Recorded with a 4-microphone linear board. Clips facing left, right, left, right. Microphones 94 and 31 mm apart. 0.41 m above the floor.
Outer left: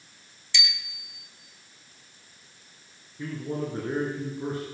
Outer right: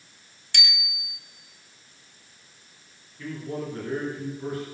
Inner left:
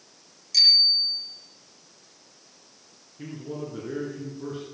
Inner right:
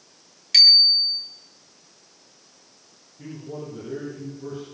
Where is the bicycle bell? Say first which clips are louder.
Outer right 1 dB, inner right 4 dB; 55° right (ahead or behind), 2.5 m.